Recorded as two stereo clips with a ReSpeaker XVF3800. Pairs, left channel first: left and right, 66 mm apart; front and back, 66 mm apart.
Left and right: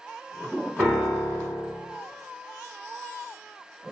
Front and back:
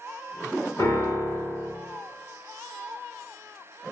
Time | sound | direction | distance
0.8 | a piano | 15° right | 1.9 m